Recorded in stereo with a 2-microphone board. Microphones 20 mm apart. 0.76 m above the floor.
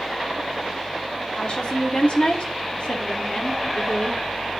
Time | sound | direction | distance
1.4 | a woman speaking | 55° left (ahead or behind) | 2 m